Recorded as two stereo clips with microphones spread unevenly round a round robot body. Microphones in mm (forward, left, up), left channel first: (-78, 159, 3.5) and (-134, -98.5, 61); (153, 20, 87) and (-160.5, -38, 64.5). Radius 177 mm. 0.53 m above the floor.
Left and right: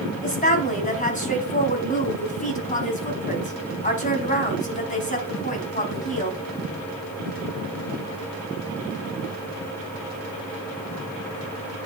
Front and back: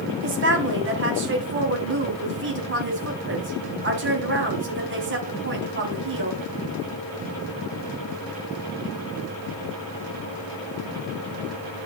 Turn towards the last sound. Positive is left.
turn(degrees=135)